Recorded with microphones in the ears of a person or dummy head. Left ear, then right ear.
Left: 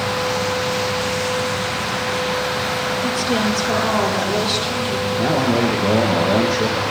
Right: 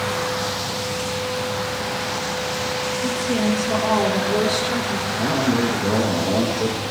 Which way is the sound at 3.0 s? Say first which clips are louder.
Left 3 dB; 30° left (ahead or behind).